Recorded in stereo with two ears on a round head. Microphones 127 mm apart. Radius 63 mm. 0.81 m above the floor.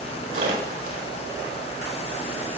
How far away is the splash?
About 4.5 m.